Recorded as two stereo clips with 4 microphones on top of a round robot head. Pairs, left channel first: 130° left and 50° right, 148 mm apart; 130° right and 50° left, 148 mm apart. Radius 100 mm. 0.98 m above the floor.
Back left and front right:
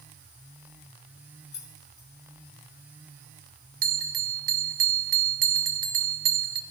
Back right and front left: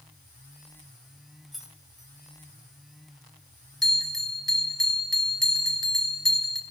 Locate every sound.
1.5 s keys jangling: 135° left, 1.7 m
3.8 s a bell: 45° right, 1.2 m